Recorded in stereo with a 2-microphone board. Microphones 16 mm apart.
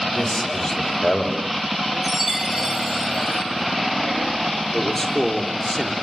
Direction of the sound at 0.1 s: 35° left (ahead or behind).